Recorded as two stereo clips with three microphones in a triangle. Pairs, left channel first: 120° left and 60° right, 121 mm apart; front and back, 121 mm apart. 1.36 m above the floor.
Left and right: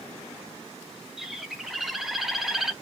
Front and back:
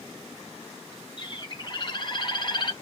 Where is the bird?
25° left, 0.8 m.